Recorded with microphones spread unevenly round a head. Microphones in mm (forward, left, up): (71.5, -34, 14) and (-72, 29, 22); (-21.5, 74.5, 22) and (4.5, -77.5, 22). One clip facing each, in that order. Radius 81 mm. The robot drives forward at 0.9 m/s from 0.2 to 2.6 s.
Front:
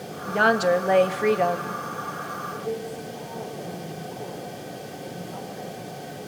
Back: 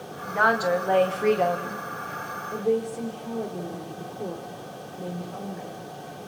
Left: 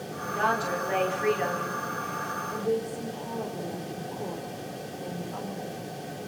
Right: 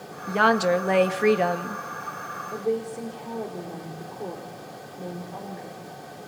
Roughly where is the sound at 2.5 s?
Behind right.